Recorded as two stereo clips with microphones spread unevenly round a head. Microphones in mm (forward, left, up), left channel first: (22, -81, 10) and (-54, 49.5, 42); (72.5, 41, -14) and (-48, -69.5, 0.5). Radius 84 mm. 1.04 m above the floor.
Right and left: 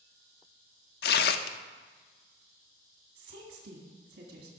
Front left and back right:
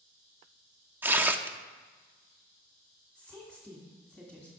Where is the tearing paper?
65° right, 0.7 m.